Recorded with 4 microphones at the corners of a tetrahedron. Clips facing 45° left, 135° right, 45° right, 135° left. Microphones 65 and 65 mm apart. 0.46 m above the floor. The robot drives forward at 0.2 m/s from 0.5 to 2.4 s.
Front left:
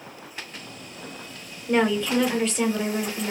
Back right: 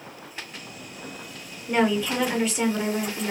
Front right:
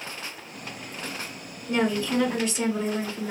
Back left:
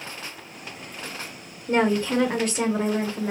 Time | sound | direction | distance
1.7 | a woman speaking | 140° left | 1.2 m